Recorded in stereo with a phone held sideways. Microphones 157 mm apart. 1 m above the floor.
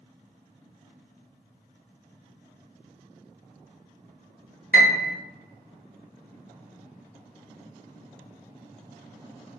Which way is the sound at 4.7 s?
65° left (ahead or behind).